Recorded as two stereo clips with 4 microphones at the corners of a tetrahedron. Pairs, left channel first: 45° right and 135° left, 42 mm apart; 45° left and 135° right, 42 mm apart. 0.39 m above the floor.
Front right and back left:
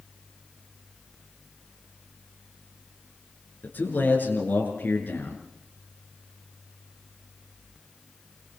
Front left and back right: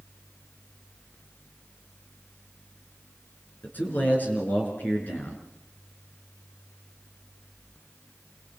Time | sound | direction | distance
3.6 | a man speaking | straight ahead | 4.5 m